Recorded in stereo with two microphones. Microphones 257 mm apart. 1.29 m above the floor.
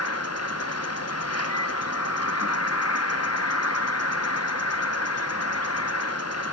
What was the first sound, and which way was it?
An insect, 75° left (ahead or behind).